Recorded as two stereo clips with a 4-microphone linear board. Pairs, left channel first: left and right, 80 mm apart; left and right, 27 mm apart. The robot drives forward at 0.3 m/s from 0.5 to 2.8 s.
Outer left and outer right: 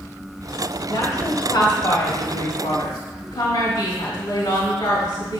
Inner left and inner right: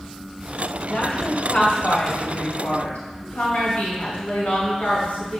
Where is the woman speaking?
65° left (ahead or behind), 3.5 m; by 5.4 s 70° left (ahead or behind), 3 m.